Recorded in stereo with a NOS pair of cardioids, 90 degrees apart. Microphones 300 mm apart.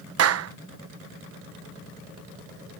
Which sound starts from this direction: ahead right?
A clap, at 0.2 s.